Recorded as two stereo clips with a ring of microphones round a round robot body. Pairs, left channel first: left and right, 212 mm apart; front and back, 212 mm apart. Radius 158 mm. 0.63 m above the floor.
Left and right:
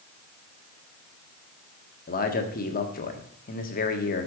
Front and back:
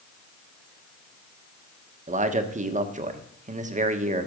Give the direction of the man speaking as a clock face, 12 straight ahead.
8 o'clock.